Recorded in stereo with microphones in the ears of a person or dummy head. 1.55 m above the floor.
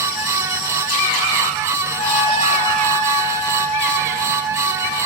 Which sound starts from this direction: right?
A trumpet, at 2.0 s.